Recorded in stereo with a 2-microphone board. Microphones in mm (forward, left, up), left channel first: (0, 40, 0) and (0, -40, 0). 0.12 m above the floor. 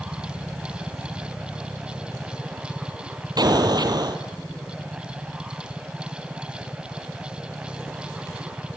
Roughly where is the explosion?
Right.